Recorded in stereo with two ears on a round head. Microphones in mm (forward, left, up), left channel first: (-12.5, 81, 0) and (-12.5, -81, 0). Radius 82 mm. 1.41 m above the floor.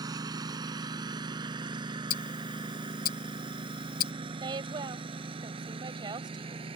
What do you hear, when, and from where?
0.0 s a lawn mower: 25° right (ahead or behind); by 6.8 s 35° right (ahead or behind)
2.1 s ticking: 55° left (ahead or behind)
4.4 s a woman speaking: 25° right (ahead or behind)